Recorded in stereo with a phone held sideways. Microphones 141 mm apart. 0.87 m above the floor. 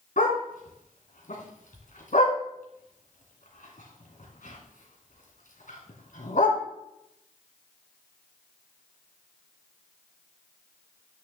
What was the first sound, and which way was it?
A dog barking, 70° left (ahead or behind).